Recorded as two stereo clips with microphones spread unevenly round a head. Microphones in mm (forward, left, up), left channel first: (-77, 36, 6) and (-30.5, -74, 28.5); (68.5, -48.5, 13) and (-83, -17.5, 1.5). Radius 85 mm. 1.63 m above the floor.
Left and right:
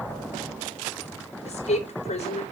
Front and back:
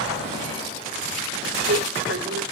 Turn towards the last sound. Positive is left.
turn(degrees=145)